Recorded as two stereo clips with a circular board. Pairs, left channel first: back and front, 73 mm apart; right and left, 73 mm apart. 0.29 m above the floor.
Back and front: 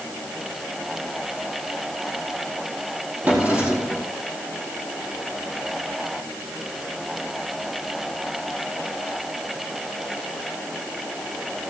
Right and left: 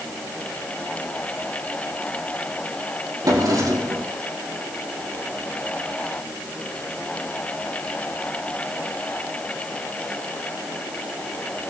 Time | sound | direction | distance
3.2 | a drawer | 70° left | 5 m